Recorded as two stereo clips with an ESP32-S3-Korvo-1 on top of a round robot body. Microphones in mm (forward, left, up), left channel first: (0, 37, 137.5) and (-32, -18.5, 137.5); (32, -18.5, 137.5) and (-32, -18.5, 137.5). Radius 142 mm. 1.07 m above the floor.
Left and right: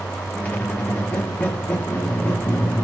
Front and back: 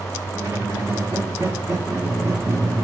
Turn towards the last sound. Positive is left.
turn(degrees=125)